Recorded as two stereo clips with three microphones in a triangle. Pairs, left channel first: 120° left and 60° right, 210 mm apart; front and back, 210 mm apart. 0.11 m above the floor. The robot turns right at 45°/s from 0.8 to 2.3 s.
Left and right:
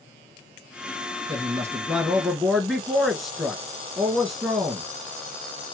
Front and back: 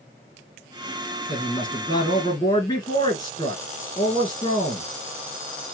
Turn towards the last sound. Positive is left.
turn(degrees=30)